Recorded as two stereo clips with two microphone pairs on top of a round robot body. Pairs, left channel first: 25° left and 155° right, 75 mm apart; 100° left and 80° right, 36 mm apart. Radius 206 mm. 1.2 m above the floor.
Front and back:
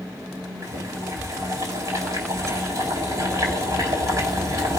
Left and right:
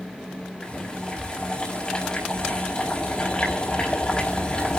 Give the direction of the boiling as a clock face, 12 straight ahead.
7 o'clock.